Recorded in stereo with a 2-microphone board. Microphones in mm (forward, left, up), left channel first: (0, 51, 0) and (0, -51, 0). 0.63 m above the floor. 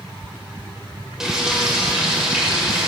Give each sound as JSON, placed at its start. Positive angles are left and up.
{"t": 1.2, "sound": "frying", "side_deg": -5, "distance_m": 1.5}